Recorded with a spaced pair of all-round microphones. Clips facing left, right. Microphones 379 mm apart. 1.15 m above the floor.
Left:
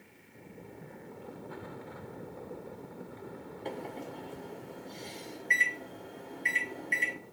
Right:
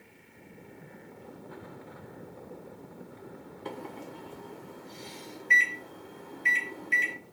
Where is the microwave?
15° right (ahead or behind), 0.6 m.